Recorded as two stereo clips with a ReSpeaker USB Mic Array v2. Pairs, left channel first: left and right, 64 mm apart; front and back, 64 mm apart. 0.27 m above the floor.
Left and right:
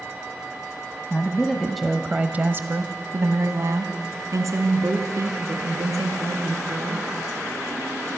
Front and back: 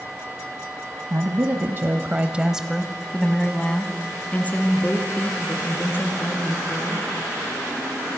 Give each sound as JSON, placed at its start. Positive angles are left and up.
{"t": 1.1, "sound": "a woman speaking", "azimuth_deg": 155, "distance_m": 1.4}